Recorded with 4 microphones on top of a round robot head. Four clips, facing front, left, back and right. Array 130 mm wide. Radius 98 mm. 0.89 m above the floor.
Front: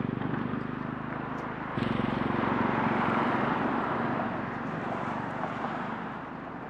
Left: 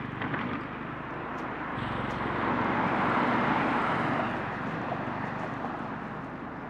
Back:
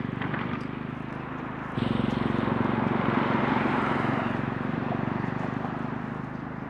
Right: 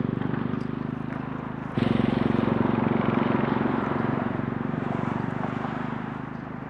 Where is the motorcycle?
80° right; by 6.7 s 125° right.